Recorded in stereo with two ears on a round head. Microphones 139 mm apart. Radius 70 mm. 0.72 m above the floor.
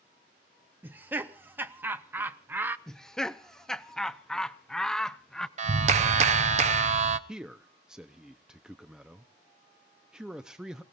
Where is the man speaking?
5° right (ahead or behind), 0.5 m.